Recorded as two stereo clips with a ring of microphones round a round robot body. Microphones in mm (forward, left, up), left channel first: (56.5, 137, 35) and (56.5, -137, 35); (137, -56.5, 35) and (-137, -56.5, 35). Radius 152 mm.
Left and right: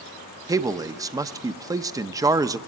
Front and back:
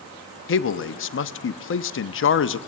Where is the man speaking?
15° right, 0.8 m.